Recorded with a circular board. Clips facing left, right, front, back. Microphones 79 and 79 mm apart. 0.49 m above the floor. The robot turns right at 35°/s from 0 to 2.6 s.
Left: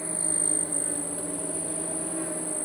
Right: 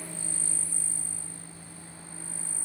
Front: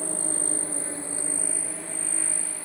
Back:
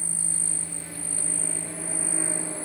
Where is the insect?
30° left; by 2.7 s 120° left.